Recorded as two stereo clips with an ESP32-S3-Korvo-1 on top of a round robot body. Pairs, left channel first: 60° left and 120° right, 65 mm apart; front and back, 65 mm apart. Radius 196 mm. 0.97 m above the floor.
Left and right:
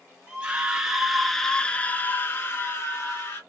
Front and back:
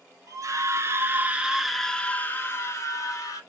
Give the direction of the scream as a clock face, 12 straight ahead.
6 o'clock.